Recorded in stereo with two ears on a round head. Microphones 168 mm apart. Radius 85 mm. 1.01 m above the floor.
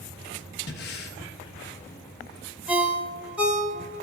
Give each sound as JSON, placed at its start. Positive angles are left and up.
{"t": 0.7, "sound": "breathing", "side_deg": 60, "distance_m": 0.6}
{"t": 2.7, "sound": "a ringtone", "side_deg": -5, "distance_m": 0.8}